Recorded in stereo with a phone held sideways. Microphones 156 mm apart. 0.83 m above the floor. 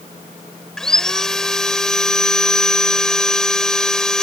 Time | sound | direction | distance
0.8 | sawing | 5° left (ahead or behind) | ?